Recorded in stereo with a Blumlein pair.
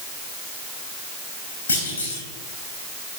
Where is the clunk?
70° left, 3.5 m.